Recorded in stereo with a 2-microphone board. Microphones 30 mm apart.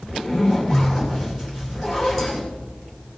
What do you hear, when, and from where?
0.1 s a zipper: 5° left (ahead or behind), 3 m